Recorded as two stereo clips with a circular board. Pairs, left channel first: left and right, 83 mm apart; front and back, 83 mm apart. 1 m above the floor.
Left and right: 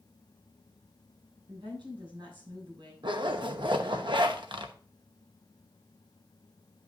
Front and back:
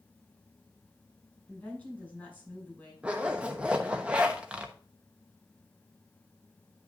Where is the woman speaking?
70° right, 6 m.